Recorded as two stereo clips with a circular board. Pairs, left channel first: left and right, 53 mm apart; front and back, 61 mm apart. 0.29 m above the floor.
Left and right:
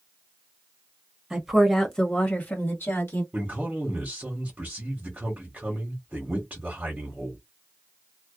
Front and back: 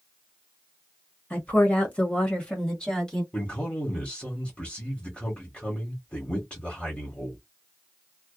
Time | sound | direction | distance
1.3 | a woman speaking | 30° right | 1.1 m
3.3 | a man speaking | 55° right | 1.1 m